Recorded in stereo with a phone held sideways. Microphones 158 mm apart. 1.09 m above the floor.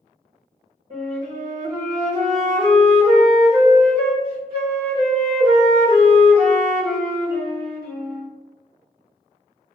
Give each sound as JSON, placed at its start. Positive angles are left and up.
{"t": 0.9, "sound": "a flute", "side_deg": -70, "distance_m": 1.7}